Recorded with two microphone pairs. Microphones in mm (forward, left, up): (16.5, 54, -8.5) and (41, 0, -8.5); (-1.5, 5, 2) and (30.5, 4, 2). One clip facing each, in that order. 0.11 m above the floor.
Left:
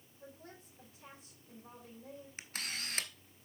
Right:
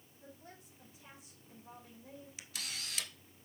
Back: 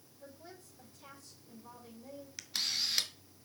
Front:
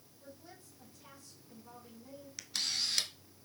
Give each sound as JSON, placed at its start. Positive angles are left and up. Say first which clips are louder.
{"t": 0.2, "sound": "a woman speaking", "louder": "left 2 dB, back 2 dB", "azimuth_deg": 135, "distance_m": 4.5}
{"t": 2.4, "sound": "a camera shutter", "louder": "left 4 dB, even", "azimuth_deg": 100, "distance_m": 1.0}